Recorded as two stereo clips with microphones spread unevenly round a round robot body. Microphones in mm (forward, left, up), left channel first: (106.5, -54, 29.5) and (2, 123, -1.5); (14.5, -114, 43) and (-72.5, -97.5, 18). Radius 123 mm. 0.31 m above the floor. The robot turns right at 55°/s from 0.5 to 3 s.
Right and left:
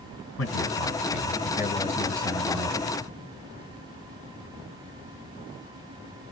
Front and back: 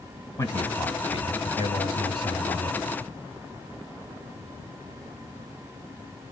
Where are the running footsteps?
No running footsteps in this recording.